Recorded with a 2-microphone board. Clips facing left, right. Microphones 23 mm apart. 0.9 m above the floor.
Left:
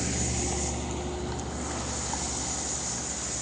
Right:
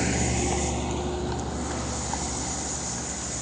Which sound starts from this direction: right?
A vehicle, at 0.0 s.